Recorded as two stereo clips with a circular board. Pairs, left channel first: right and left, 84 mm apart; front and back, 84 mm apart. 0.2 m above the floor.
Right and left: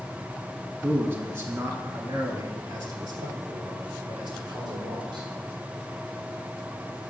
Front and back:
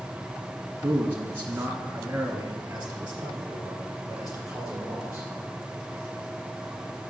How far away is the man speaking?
About 1.4 m.